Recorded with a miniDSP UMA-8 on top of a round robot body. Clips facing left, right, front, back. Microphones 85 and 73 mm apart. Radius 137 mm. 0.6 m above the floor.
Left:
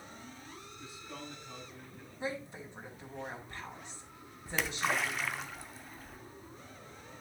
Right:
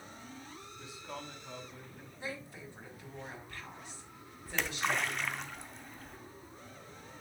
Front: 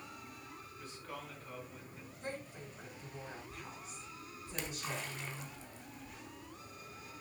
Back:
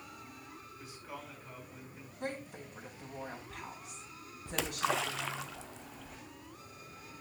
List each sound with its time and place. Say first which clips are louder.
0.8 s a man speaking: right 3 dB, even; 95° right, 6 m
2.2 s a woman speaking: left 4 dB, back 4 dB; 160° left, 3.5 m
4.5 s a splash: left 1 dB, back 9 dB; straight behind, 0.7 m